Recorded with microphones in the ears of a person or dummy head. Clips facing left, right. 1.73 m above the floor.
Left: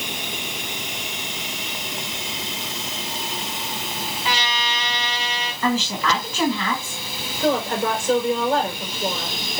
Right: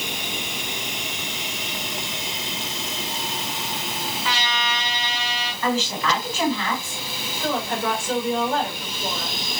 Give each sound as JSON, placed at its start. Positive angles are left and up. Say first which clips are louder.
{"t": 4.2, "sound": "a trumpet", "louder": "left 1 dB", "side_deg": 20, "distance_m": 4.5}
{"t": 5.6, "sound": "a woman speaking", "louder": "left 1 dB", "side_deg": 75, "distance_m": 3.5}
{"t": 7.4, "sound": "a woman speaking", "louder": "left 4 dB", "side_deg": 35, "distance_m": 5.5}